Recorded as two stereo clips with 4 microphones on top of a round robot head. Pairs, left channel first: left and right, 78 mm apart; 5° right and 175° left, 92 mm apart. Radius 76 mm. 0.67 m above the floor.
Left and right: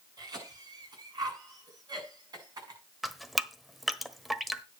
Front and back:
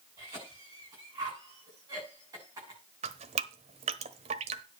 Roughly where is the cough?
Behind right.